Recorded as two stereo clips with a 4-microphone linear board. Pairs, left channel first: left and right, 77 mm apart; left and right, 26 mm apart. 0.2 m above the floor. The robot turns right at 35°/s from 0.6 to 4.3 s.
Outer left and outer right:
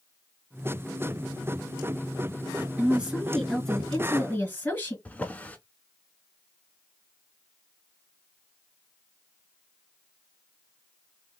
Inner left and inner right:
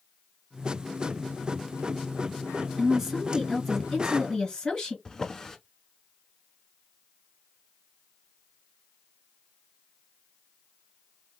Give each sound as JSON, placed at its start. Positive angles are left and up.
{"t": 2.8, "sound": "a woman speaking", "azimuth_deg": -25, "distance_m": 2.5}
{"t": 5.0, "sound": "a drawer", "side_deg": 20, "distance_m": 0.7}